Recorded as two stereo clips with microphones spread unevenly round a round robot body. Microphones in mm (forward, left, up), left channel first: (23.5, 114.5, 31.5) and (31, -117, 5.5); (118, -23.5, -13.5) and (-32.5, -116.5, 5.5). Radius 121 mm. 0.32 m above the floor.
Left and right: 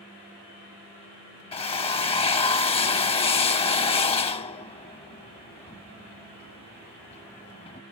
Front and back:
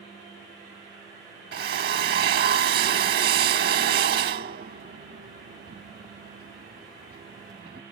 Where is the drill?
160° left.